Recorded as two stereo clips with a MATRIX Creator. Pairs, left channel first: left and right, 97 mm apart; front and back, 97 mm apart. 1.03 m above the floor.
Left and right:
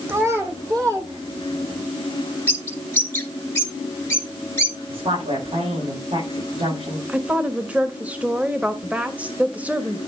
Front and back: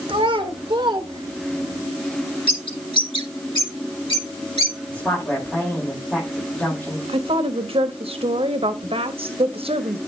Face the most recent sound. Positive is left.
turn(degrees=-165)